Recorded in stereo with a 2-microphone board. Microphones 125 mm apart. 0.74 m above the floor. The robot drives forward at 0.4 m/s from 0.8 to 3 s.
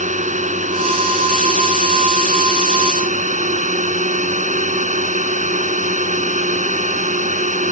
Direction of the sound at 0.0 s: 70° right (ahead or behind).